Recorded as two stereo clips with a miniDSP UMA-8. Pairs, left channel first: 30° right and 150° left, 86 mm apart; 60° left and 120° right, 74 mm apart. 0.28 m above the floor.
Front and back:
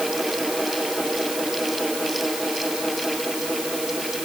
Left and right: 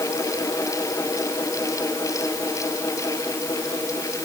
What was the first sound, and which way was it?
Only background noise.